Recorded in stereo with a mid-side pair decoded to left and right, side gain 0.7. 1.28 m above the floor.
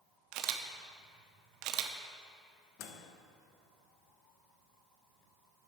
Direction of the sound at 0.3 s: 65° right.